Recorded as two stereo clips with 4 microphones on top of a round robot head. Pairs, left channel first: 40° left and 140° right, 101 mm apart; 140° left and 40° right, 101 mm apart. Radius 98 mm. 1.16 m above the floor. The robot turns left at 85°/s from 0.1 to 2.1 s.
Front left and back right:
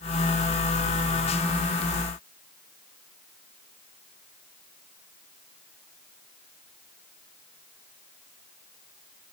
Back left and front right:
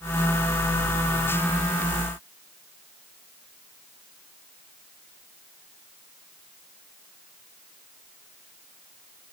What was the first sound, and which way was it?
Only background noise.